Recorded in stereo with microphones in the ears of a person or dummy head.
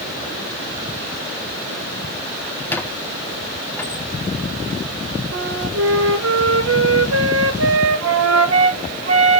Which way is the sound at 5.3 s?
80° right.